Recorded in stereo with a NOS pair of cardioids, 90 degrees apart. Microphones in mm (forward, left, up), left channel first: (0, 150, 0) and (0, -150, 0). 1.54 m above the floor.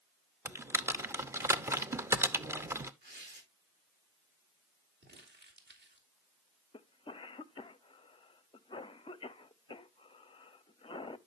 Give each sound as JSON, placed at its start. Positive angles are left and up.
{"t": 0.5, "sound": "typing on a keyboard", "azimuth_deg": -10, "distance_m": 0.8}
{"t": 3.0, "sound": "tearing paper", "azimuth_deg": -35, "distance_m": 7.0}
{"t": 5.0, "sound": "crumpling", "azimuth_deg": -35, "distance_m": 3.0}
{"t": 6.7, "sound": "a cough", "azimuth_deg": 20, "distance_m": 0.8}